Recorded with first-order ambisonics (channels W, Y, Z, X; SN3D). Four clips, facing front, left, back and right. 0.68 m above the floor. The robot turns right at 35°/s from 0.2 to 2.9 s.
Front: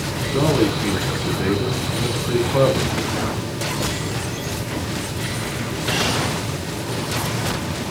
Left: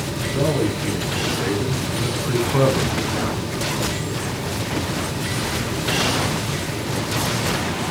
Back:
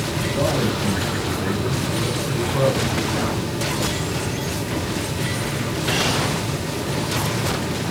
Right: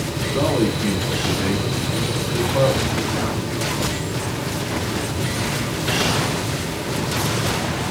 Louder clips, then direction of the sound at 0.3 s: Right 2 dB, front 4 dB; 35° right.